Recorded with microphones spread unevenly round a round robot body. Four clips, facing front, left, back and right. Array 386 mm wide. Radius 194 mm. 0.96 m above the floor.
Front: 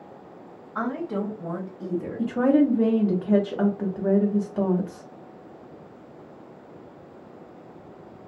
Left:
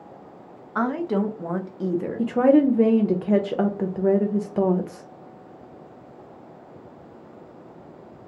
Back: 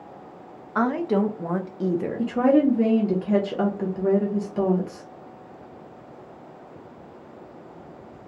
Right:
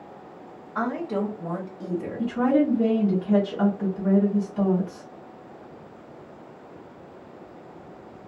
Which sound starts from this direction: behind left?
A woman speaking, at 0.8 s.